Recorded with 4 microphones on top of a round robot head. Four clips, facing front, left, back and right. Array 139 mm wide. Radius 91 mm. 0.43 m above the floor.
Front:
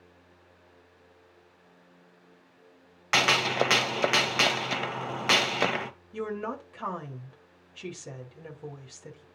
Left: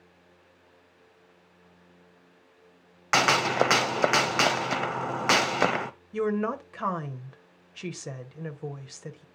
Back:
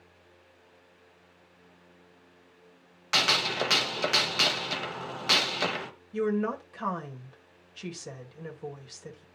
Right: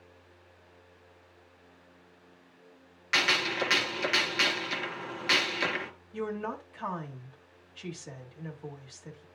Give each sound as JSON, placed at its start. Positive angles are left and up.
{"t": 3.1, "sound": "a gunshot", "azimuth_deg": 65, "distance_m": 0.7}
{"t": 6.1, "sound": "a woman speaking", "azimuth_deg": 90, "distance_m": 2.5}